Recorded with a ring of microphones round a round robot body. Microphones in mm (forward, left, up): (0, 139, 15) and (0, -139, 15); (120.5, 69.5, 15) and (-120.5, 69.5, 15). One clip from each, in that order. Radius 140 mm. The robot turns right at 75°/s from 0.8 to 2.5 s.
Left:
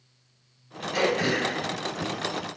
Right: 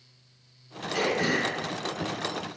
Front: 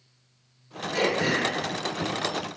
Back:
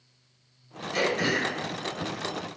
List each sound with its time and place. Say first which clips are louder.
0.9 s throat clearing: left 2 dB, front 1 dB; 140° left, 1.3 m; by 2.6 s 100° right, 1.3 m